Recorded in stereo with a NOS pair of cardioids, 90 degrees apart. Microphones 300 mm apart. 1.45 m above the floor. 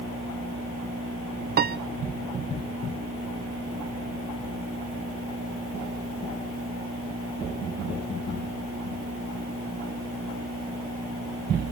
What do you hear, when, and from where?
1.6 s a piano: 35° right, 0.5 m